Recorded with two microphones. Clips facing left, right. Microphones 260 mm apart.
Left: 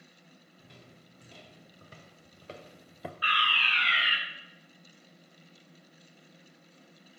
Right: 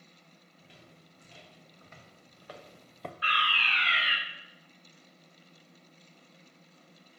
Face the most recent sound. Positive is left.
turn(degrees=-25)  # may be behind; listen again after turning